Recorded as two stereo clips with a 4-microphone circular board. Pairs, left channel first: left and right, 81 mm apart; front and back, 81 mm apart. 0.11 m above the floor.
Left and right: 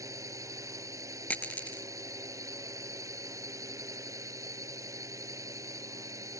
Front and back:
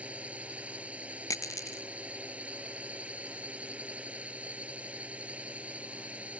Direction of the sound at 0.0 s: 115° right.